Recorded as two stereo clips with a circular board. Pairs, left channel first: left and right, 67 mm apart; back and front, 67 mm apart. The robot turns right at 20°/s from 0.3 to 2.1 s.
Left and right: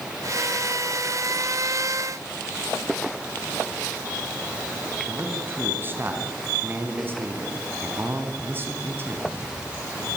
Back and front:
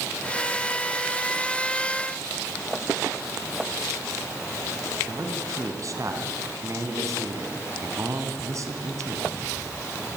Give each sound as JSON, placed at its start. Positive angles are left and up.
{"t": 5.1, "sound": "a man speaking", "azimuth_deg": -35, "distance_m": 3.5}